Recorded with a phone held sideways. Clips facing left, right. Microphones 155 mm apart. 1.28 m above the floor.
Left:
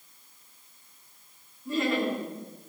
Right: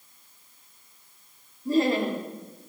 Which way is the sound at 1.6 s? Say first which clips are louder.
Right 4 dB; 35° right (ahead or behind).